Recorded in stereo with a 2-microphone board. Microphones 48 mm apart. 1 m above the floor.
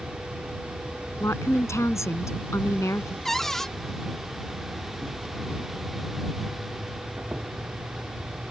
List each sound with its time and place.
0.0 s an insect: 30° right (ahead or behind)
1.2 s a woman speaking: 85° left
3.2 s a cupboard door: 5° left (ahead or behind)